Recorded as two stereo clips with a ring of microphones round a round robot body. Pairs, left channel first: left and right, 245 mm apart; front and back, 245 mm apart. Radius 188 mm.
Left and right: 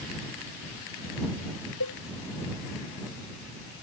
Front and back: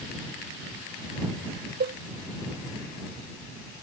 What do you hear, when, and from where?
1.8 s a cowbell: 135° left